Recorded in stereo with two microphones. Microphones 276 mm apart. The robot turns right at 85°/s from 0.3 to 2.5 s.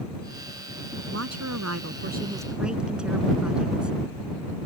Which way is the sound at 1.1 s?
125° right.